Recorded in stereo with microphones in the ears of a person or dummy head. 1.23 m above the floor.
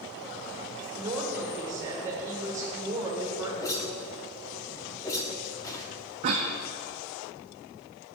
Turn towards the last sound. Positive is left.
turn(degrees=-40)  # may be behind; listen again after turning